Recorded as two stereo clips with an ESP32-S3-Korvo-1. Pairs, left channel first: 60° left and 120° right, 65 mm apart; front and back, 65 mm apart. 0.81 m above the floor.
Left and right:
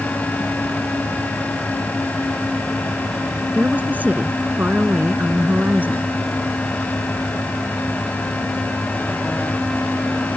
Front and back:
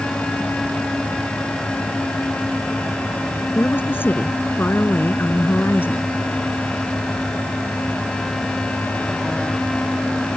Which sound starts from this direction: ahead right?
A woman speaking, at 3.5 s.